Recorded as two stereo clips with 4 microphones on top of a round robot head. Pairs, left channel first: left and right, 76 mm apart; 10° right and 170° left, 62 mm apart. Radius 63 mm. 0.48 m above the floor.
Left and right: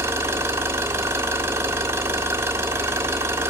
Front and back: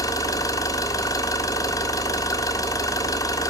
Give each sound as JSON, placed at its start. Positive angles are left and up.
{"t": 0.0, "sound": "an engine running", "azimuth_deg": -30, "distance_m": 1.3}